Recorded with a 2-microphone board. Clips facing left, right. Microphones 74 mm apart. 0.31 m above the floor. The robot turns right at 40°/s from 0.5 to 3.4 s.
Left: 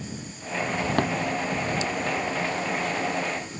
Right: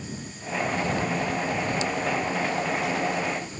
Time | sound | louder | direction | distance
1.0 | a thud | left 4 dB | 70° left (ahead or behind) | ?